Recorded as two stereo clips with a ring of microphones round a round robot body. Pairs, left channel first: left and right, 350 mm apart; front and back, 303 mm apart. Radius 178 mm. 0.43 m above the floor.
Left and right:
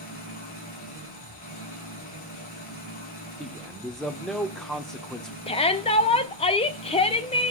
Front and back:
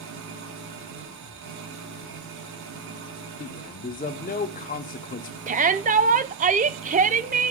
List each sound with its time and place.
0.0 s an engine running: 155° left, 3 m
3.4 s a man speaking: 5° left, 0.8 m
5.5 s a shout: 145° left, 0.8 m